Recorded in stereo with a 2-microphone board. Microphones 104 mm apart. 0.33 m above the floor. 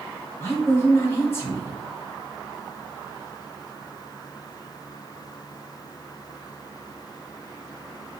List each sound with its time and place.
0.4 s a woman speaking: 25° left (ahead or behind), 1.2 m